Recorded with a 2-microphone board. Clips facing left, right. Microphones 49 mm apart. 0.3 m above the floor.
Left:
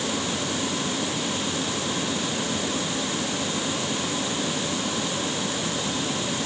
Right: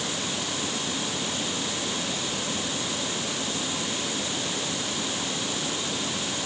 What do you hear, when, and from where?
Only background noise.